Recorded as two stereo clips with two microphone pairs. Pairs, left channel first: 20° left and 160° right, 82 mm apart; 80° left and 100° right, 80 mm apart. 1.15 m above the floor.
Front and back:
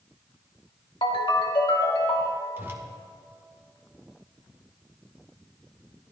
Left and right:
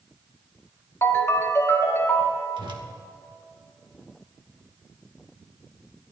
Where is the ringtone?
25° left, 1.7 m.